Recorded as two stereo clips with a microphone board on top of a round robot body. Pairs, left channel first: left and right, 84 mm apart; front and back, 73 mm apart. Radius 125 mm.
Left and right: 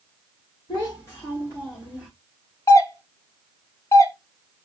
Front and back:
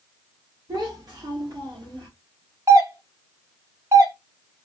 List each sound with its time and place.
0.7 s a child speaking: 135° left, 1.5 m; by 2.1 s 165° left, 1.6 m
2.7 s a doorbell: 140° left, 1.0 m